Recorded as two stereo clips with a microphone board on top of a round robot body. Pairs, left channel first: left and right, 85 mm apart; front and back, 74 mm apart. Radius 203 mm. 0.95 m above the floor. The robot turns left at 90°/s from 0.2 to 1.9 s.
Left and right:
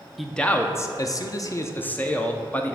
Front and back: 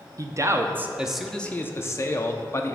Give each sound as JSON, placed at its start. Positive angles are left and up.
{"t": 0.2, "sound": "a man speaking", "azimuth_deg": 180, "distance_m": 0.7}